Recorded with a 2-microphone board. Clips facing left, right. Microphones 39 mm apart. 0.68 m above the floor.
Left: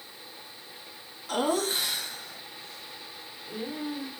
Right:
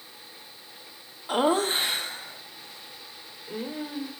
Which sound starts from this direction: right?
Laughter, at 1.3 s.